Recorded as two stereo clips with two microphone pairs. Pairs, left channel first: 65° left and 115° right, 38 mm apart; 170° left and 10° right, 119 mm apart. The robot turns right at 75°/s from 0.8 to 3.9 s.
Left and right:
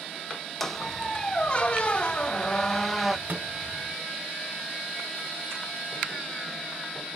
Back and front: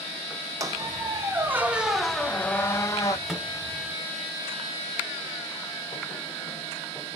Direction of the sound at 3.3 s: 100° right.